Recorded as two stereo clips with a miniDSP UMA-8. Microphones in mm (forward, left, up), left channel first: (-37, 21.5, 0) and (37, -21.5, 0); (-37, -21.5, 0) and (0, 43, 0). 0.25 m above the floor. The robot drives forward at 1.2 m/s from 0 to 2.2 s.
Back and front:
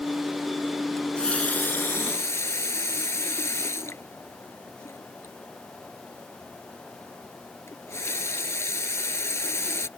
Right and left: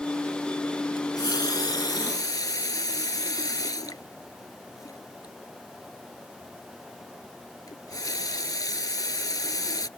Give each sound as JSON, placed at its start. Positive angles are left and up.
{"t": 1.0, "sound": "a running tap", "azimuth_deg": -125}